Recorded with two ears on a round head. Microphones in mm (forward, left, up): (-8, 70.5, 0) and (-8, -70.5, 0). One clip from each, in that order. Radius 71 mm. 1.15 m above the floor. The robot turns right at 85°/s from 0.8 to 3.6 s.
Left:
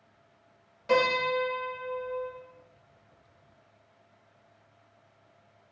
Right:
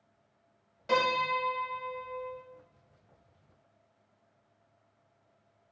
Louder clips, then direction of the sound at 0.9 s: Left 3 dB; straight behind.